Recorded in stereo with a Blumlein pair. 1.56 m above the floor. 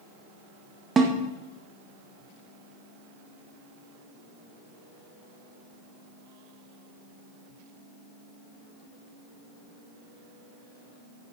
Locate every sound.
1.0 s a snare drum: 15° right, 1.9 m